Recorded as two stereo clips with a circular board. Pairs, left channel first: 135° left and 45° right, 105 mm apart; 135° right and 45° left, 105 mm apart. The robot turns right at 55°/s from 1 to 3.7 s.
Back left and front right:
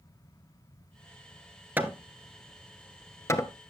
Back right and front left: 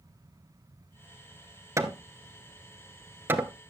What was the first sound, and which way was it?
Hammering, 15° left.